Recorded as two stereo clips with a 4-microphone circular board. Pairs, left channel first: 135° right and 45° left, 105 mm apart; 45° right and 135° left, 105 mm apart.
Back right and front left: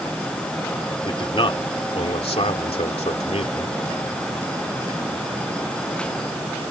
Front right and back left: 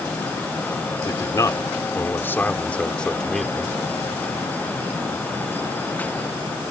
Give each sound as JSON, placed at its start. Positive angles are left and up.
{"t": 1.1, "sound": "a man speaking", "azimuth_deg": -95}